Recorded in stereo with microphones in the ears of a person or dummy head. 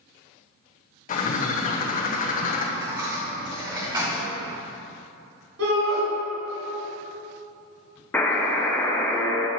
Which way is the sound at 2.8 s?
25° right (ahead or behind).